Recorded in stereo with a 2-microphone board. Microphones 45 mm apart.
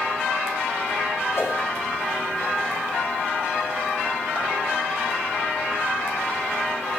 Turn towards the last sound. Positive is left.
turn(degrees=70)  # may be behind; listen again after turning